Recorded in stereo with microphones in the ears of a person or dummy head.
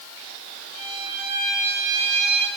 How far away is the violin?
About 4 m.